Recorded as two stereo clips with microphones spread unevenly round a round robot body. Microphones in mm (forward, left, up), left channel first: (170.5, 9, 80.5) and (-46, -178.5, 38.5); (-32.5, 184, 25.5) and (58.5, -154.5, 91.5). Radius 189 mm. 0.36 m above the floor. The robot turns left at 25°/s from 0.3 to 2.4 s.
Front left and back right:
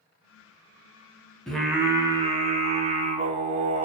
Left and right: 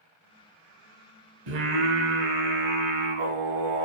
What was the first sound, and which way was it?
Singing, 50° right.